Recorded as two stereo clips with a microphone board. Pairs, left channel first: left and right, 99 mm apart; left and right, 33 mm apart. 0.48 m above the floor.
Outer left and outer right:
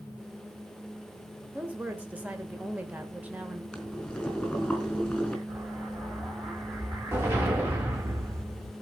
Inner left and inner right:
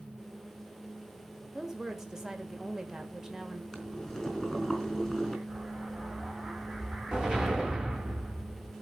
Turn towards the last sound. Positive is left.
turn(degrees=-20)  # may be behind; listen again after turning